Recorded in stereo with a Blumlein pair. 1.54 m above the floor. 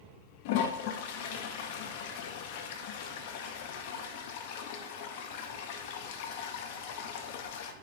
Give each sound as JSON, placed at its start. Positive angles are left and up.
{"t": 0.5, "sound": "a toilet flushing", "azimuth_deg": 50, "distance_m": 0.7}